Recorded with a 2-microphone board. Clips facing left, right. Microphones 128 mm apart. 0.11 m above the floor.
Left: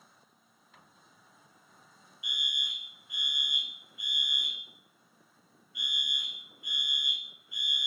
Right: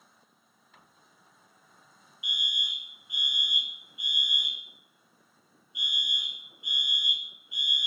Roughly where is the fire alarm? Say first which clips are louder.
Right 3 dB; right.